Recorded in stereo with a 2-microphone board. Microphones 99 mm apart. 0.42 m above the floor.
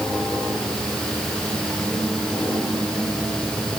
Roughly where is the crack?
No crack in this recording.